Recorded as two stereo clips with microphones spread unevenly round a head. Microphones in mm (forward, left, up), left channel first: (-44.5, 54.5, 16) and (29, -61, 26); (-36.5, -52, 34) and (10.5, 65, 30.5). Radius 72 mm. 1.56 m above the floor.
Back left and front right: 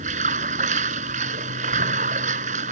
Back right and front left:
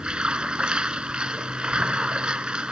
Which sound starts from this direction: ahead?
Running water, at 0.0 s.